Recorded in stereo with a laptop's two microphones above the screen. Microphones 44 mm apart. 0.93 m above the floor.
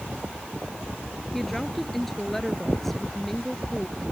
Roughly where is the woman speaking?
Centre.